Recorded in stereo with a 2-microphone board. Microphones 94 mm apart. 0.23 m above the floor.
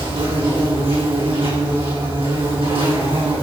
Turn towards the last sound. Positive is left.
turn(degrees=-85)